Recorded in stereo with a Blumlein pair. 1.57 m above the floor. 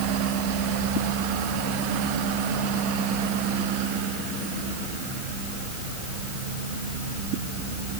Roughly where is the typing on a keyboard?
No typing on a keyboard in this recording.